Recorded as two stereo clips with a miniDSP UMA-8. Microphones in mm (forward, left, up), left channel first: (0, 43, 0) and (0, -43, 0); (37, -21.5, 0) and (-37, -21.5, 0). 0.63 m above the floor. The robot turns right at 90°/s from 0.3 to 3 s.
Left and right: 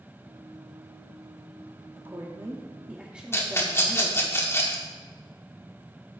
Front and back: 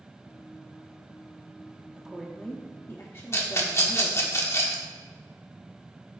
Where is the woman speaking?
115° right, 1.1 m; by 4.3 s 20° right, 1.1 m.